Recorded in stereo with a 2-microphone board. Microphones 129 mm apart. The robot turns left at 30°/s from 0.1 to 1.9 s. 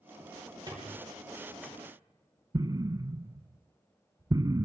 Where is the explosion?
30° right (ahead or behind), 0.6 m.